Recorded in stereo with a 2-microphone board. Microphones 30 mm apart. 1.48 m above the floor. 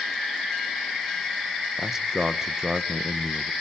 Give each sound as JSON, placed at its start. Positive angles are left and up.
{"t": 1.8, "sound": "a man speaking", "side_deg": -15, "distance_m": 1.7}